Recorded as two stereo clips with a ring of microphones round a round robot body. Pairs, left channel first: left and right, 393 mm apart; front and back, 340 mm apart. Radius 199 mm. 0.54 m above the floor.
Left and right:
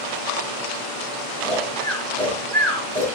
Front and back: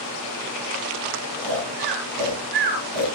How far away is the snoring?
About 9 m.